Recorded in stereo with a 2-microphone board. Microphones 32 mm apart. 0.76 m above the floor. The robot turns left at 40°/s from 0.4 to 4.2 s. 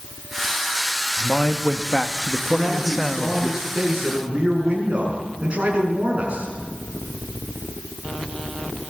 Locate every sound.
1.2 s a man speaking: 110° right, 1.2 m; by 3.5 s 155° left, 1.2 m
2.5 s a man speaking: 30° left, 7 m; by 6.5 s 35° right, 7 m